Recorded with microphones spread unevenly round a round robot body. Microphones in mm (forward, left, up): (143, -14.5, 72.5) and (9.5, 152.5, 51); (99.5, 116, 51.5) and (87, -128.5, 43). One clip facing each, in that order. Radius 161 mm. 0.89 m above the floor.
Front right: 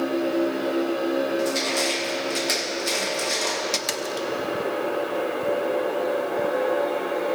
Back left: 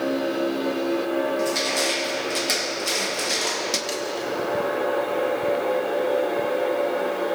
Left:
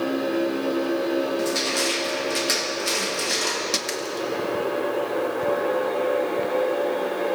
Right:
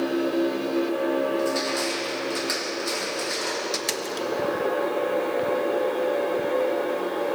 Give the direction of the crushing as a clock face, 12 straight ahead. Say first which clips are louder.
Even, left 1 dB; 11 o'clock.